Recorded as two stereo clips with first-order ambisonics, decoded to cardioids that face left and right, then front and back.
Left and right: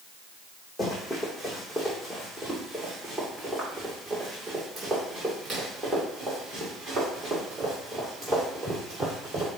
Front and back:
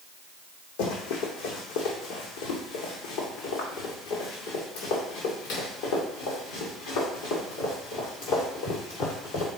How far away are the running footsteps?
About 1.9 m.